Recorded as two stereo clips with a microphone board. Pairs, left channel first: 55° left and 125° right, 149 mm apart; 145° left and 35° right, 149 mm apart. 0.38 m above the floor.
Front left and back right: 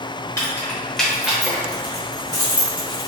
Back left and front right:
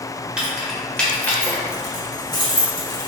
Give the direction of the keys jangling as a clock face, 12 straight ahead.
11 o'clock.